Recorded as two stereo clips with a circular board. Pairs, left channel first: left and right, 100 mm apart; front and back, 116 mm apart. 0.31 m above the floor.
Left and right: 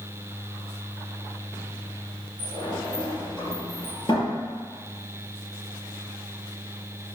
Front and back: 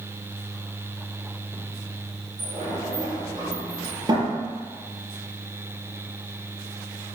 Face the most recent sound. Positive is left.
turn(degrees=125)